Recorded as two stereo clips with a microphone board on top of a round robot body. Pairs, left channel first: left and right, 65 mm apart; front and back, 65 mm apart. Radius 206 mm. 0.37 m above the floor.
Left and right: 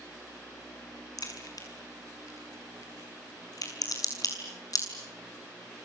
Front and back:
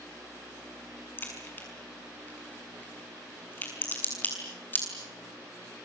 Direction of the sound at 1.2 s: 60° left.